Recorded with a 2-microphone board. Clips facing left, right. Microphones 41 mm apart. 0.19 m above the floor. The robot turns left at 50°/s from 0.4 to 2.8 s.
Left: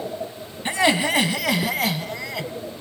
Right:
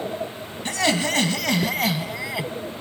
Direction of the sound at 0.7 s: 20° left (ahead or behind).